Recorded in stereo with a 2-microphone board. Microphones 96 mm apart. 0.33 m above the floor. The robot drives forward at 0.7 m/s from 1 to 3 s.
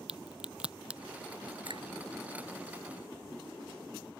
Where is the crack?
10° right (ahead or behind).